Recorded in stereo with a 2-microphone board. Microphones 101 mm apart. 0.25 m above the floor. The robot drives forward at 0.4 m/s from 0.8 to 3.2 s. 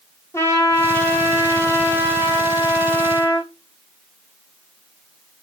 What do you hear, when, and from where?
0.3 s a trumpet: 30° left (ahead or behind), 1.9 m; by 3.5 s 20° left (ahead or behind), 3 m